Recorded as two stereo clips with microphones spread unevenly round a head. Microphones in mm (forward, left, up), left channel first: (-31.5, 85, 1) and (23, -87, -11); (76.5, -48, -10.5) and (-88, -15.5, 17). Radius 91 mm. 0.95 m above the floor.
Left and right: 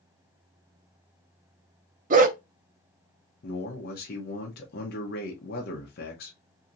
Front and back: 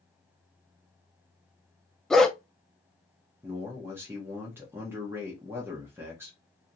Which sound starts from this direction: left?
A man speaking, at 3.4 s.